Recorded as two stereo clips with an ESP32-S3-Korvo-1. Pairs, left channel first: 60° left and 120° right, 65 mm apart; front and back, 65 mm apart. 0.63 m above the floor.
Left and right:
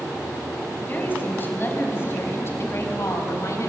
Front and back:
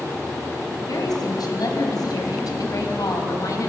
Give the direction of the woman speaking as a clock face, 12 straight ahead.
12 o'clock.